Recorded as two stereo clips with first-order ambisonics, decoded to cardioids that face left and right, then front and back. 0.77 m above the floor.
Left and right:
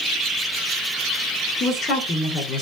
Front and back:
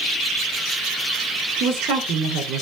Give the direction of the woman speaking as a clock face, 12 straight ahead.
7 o'clock.